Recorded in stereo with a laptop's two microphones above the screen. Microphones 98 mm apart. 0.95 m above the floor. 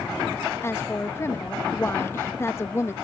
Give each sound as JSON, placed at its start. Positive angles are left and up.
{"t": 0.6, "sound": "a woman speaking", "side_deg": 25}